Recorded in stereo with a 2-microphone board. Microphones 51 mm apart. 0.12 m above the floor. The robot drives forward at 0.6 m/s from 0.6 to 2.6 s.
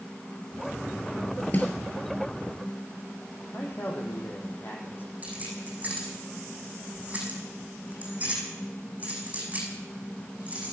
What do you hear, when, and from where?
1.5 s a snare drum: 35° left (ahead or behind), 3 m
3.5 s a man speaking: 40° left (ahead or behind), 5 m
5.2 s keys jangling: 30° right (ahead or behind), 5.5 m